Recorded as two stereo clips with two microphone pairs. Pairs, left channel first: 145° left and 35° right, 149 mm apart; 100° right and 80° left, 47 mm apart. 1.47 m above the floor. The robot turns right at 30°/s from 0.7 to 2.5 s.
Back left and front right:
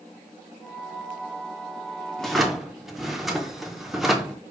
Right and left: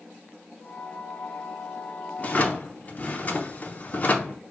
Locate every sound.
2.2 s a drawer: 130° right, 0.6 m; by 4.4 s 120° right, 0.6 m